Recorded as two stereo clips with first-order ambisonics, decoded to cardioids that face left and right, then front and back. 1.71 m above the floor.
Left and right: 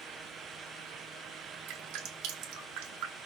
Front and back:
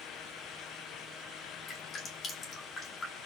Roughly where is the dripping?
Ahead right.